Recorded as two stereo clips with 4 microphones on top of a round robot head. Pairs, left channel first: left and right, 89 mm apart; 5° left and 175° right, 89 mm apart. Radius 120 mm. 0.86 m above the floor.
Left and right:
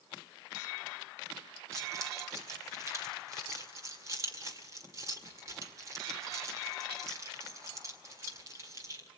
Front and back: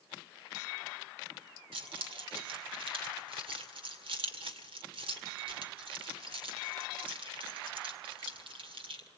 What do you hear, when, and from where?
1.7 s keys jangling: 150° right, 2.0 m